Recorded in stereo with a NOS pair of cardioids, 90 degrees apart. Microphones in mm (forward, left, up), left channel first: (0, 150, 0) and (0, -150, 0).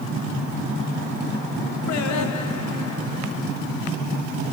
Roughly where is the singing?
Ahead left.